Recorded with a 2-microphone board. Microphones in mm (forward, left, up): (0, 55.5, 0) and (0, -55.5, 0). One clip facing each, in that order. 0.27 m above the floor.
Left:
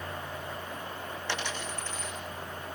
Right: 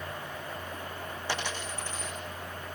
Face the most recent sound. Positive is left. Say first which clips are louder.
# right 1 dB
turn(degrees=-10)  # may be behind; listen again after turning